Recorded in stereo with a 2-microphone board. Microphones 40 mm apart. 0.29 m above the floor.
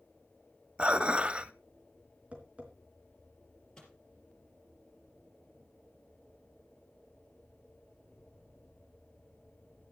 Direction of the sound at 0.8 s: 30° right (ahead or behind).